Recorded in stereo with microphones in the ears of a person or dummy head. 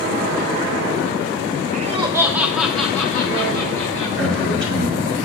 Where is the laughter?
45° right (ahead or behind), 0.5 m; by 4.1 s 15° left (ahead or behind), 2.5 m.